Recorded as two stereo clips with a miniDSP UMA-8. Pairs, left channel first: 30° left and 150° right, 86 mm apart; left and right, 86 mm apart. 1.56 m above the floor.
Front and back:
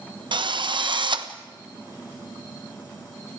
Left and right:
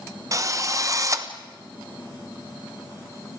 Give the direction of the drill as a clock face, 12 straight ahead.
5 o'clock.